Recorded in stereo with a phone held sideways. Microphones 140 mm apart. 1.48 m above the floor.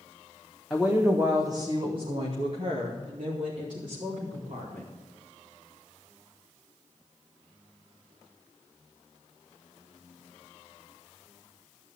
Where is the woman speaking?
Centre (ahead or behind), 1.8 m; by 4.9 s 75° right (ahead or behind), 5 m.